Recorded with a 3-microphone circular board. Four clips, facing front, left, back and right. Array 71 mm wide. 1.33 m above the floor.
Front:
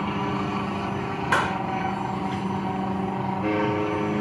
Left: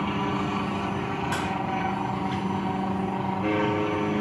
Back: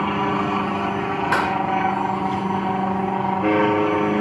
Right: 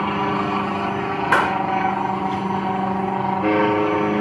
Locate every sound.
0.0 s an aircraft: 125° right
1.3 s a clap: 95° right